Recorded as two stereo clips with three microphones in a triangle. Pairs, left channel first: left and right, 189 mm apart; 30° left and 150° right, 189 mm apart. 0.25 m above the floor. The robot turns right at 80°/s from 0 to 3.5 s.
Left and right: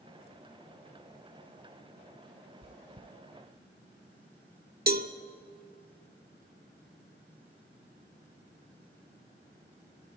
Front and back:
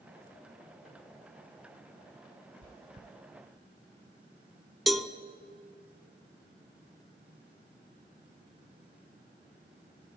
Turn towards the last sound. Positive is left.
turn(degrees=-60)